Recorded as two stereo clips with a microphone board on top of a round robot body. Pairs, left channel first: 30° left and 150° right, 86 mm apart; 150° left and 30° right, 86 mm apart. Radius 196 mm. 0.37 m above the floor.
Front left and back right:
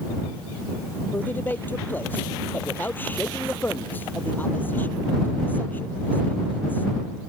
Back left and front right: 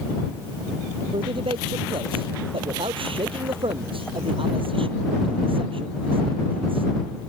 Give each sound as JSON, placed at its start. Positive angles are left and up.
{"t": 1.1, "sound": "a man speaking", "azimuth_deg": -40}